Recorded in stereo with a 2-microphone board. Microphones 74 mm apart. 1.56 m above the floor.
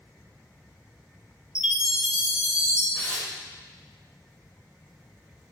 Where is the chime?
10° right (ahead or behind), 1.9 m.